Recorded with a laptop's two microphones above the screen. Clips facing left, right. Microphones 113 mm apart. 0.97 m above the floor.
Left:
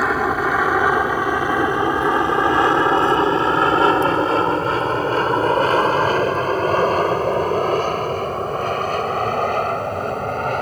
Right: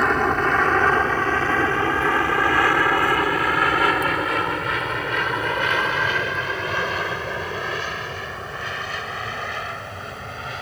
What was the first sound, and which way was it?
An aircraft, 5° left (ahead or behind).